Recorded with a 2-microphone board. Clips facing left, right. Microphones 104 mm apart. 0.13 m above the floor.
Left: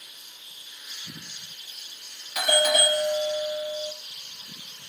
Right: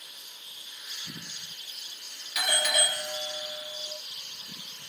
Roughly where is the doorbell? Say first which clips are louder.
Left 7 dB; left.